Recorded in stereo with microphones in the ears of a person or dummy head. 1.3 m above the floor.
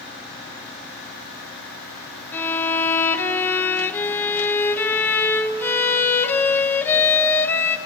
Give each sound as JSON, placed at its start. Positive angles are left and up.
{"t": 2.3, "sound": "a violin", "side_deg": 10, "distance_m": 0.9}